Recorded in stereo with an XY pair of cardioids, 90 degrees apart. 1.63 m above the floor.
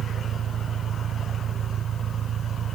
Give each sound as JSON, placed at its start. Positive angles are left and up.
{"t": 0.0, "sound": "an engine running", "azimuth_deg": -65}